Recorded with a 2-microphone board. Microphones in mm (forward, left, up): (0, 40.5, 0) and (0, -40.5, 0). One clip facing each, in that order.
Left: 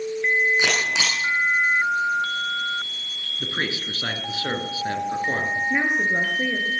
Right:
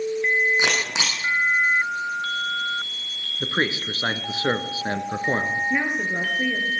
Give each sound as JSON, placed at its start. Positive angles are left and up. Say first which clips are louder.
{"t": 0.6, "sound": "a camera shutter", "louder": "left 1 dB", "side_deg": -20, "distance_m": 8.0}
{"t": 3.4, "sound": "a man speaking", "louder": "right 4 dB", "side_deg": -30, "distance_m": 1.6}
{"t": 5.7, "sound": "a woman speaking", "louder": "left 2 dB", "side_deg": 15, "distance_m": 3.0}